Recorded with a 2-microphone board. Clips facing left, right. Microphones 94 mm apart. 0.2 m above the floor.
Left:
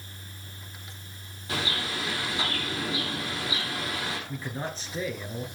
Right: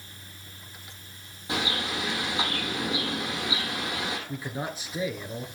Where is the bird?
20° right (ahead or behind), 6 m.